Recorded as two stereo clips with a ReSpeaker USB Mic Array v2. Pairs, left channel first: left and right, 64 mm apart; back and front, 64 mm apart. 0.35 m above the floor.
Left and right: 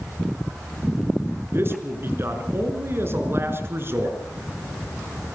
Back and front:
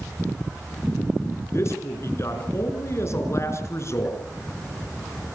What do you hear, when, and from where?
1.5 s a man speaking: 140° right, 5 m